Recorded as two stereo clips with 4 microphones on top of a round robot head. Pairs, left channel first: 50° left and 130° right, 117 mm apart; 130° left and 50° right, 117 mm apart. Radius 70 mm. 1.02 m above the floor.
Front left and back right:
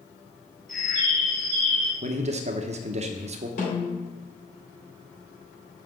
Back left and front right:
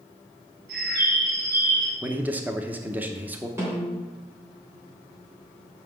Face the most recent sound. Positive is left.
turn(degrees=25)